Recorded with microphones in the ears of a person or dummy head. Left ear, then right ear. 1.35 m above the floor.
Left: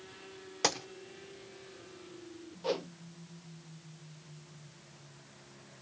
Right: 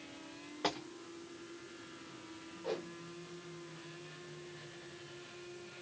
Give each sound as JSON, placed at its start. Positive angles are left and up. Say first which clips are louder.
{"t": 0.6, "sound": "a gunshot", "louder": "left 6 dB", "side_deg": 80, "distance_m": 0.8}
{"t": 2.6, "sound": "a whoosh", "louder": "left 6 dB", "side_deg": 45, "distance_m": 0.6}